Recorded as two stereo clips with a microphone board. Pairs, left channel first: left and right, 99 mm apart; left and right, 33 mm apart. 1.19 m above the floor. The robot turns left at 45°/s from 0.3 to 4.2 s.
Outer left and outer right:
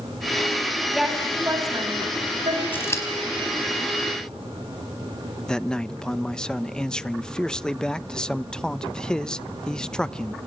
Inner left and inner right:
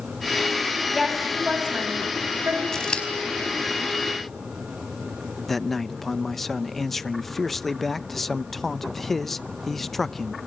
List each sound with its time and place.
0.9 s a woman speaking: straight ahead, 9 m; by 2.6 s 75° right, 9 m
2.7 s scissors: 20° left (ahead or behind), 4.5 m; by 3.0 s 35° left (ahead or behind), 4.5 m
5.5 s a man speaking: 10° left (ahead or behind), 0.7 m